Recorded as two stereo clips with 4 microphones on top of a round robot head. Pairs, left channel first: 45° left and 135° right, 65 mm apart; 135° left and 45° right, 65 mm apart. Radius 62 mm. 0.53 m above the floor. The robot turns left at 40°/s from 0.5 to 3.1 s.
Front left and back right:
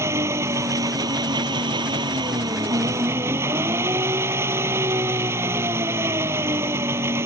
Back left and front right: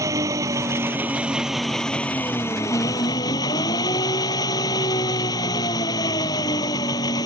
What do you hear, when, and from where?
0.0 s an engine running: 90° right; by 7.3 s 165° left